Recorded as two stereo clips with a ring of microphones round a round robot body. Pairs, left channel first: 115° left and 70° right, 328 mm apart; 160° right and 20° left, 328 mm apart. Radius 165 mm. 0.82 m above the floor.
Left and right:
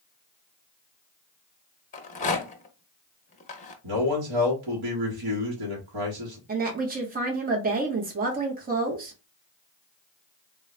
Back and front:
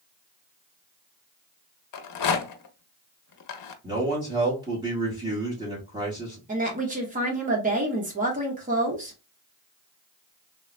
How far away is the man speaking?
About 1.1 m.